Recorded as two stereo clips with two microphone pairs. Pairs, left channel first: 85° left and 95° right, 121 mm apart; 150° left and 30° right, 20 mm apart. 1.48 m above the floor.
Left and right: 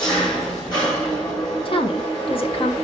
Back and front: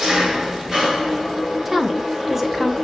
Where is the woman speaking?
45° left, 1.1 m.